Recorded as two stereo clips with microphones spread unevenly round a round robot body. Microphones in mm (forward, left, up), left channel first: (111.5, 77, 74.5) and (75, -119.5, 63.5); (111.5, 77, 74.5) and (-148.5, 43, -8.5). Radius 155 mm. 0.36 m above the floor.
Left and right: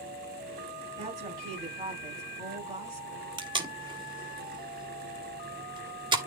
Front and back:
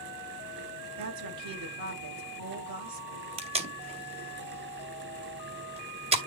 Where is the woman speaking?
175° right, 6.5 m.